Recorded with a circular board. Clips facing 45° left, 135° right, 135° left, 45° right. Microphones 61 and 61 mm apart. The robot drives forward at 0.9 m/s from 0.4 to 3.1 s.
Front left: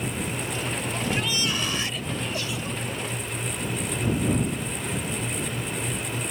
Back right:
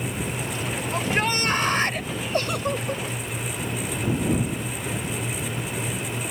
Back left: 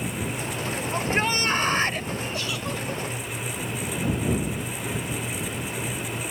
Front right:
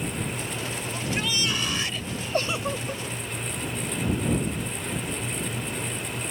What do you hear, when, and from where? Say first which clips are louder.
0.9 s a shout: back right 6 dB, back left 5 dB; 175° right; by 2.1 s straight behind
2.3 s a giggle: back right 6 dB, front right 3 dB; 90° right; by 3.0 s 135° right